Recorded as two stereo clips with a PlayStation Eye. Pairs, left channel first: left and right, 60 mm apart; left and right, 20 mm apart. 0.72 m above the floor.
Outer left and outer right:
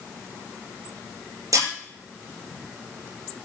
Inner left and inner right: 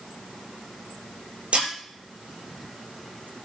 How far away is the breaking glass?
About 8.5 m.